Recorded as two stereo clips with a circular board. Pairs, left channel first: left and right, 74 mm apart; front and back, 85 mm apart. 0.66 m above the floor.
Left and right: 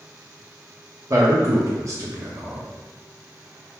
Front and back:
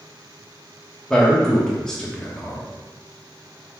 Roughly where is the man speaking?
Right.